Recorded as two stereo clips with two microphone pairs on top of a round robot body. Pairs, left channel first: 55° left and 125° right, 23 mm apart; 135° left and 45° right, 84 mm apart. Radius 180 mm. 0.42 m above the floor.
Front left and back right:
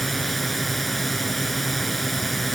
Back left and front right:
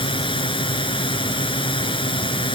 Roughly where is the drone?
Behind left.